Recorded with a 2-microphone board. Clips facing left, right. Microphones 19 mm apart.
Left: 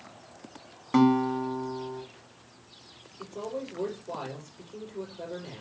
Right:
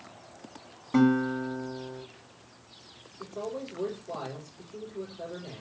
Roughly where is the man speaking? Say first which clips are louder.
Even; left.